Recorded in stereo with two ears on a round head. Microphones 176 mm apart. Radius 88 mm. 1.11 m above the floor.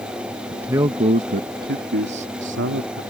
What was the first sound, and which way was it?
A man speaking, 5° right (ahead or behind).